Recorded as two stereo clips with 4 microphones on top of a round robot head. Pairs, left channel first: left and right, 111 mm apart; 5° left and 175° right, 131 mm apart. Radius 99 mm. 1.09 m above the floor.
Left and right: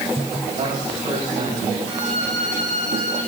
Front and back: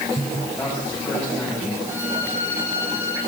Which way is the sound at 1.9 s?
105° right.